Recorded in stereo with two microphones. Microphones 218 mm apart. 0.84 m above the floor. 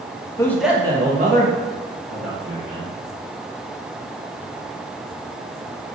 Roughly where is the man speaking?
Centre.